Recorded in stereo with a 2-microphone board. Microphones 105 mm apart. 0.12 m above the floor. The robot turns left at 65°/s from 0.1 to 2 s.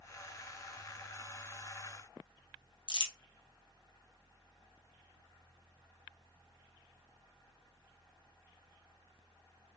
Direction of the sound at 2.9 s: 50° left (ahead or behind).